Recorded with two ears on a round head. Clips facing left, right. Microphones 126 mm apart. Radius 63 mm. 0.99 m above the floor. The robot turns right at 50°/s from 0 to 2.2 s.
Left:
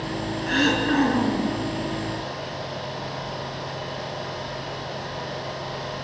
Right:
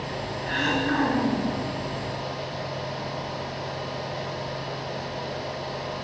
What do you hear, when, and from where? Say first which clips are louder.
0.5 s throat clearing: left 4 dB; 120° left, 5 m; by 1.5 s 175° left, 5 m